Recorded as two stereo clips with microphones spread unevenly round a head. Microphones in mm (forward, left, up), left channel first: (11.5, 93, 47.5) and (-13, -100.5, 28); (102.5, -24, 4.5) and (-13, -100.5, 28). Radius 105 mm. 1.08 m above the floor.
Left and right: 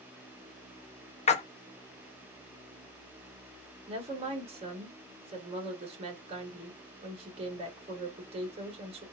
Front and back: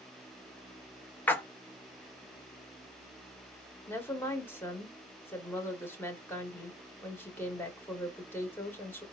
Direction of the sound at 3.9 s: 40° right.